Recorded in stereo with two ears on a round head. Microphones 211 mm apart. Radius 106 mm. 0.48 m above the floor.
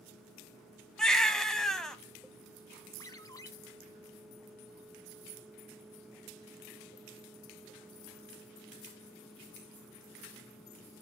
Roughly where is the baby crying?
Centre.